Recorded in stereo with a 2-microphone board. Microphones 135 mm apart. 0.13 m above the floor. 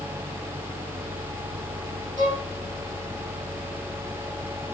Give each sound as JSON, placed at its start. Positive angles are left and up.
{"t": 2.2, "sound": "a violin", "side_deg": 35, "distance_m": 4.0}